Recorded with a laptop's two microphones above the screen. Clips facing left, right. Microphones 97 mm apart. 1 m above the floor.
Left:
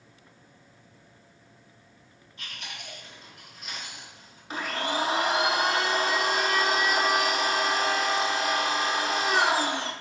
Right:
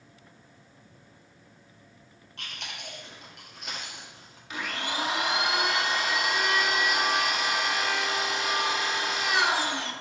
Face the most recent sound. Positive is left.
turn(degrees=35)  # may be behind; listen again after turning